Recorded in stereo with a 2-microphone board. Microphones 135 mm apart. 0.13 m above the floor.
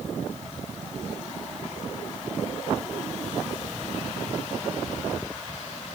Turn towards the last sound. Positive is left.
No sound to turn to.